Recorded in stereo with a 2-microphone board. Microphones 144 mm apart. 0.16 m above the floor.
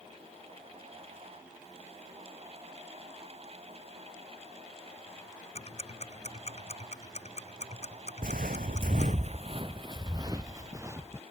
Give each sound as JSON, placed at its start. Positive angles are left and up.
{"t": 5.5, "sound": "ticking", "side_deg": 45}
{"t": 8.2, "sound": "footsteps", "side_deg": -70}